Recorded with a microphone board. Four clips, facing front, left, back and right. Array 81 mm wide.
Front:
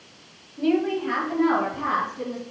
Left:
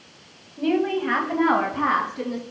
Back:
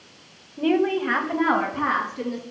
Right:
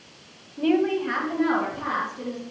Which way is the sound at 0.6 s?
160° right.